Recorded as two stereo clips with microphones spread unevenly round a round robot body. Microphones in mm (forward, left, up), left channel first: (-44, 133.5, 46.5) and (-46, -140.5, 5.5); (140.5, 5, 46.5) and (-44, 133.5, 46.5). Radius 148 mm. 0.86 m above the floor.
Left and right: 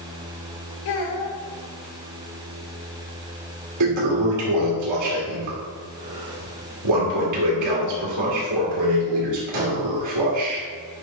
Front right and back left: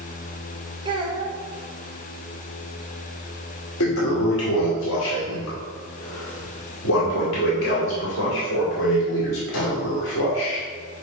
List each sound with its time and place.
0.8 s a child speaking: 75° left, 2.5 m
3.8 s a toilet flushing: 70° right, 2 m